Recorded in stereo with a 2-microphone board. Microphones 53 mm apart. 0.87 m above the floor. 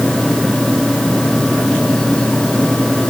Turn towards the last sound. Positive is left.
No sound to turn to.